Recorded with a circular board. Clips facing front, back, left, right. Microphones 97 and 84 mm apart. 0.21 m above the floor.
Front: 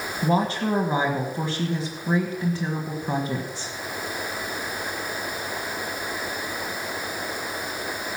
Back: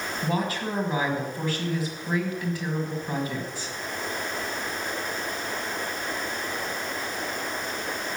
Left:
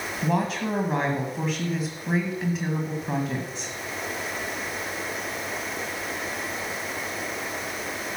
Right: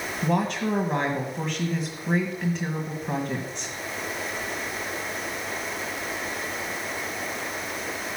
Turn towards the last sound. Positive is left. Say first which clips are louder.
# front 6 dB, right 1 dB
turn(degrees=5)